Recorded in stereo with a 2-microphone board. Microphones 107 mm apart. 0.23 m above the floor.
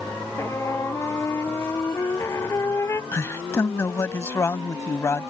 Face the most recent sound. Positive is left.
turn(degrees=25)  # may be behind; listen again after turning